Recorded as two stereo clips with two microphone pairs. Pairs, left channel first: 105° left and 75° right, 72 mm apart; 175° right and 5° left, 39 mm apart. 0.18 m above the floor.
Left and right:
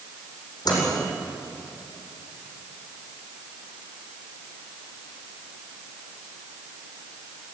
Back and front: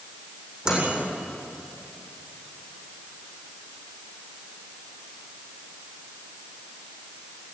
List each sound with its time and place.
0.7 s a microwave: 75° left, 7.5 m